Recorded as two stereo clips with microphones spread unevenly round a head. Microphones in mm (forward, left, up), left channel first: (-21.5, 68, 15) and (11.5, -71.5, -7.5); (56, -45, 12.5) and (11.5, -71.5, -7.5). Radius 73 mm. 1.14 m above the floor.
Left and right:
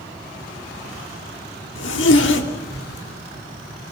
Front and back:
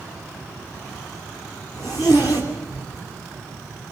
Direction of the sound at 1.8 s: 100° left.